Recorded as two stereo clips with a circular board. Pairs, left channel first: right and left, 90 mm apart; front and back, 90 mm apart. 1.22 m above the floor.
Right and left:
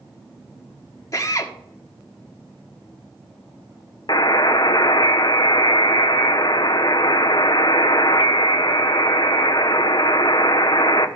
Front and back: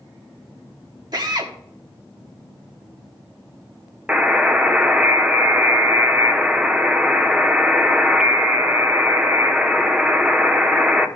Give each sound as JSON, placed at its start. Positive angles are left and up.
{"t": 1.1, "sound": "a drill", "azimuth_deg": -140, "distance_m": 1.4}
{"t": 4.1, "sound": "a buzzer", "azimuth_deg": -105, "distance_m": 0.8}